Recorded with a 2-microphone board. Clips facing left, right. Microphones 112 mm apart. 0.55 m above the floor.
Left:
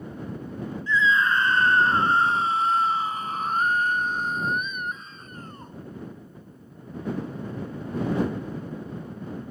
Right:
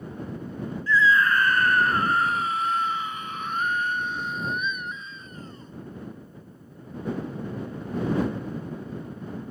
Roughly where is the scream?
Centre.